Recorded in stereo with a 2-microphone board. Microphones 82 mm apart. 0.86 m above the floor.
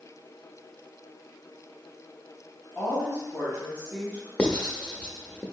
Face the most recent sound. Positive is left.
turn(degrees=15)  # may be behind; listen again after turning